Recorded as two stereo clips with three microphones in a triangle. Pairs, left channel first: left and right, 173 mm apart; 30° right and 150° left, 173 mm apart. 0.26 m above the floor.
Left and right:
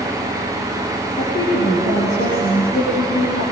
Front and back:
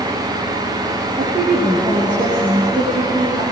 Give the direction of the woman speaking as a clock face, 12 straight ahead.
9 o'clock.